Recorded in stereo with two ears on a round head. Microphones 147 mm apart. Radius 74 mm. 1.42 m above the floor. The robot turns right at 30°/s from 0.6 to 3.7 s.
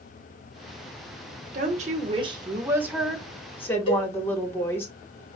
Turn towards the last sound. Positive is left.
turn(degrees=35)  # may be behind; listen again after turning